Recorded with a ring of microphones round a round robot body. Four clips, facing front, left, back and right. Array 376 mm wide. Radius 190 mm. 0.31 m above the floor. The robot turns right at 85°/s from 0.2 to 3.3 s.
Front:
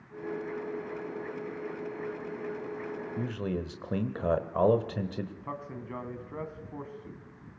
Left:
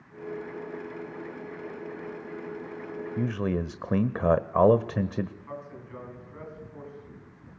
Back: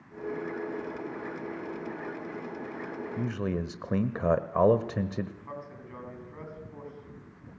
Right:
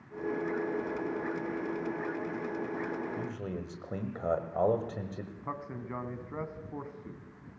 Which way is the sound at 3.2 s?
90° left.